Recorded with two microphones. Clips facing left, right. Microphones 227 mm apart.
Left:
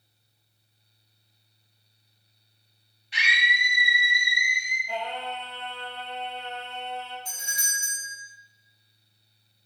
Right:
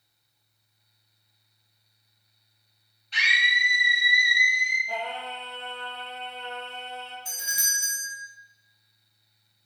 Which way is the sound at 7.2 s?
5° right (ahead or behind).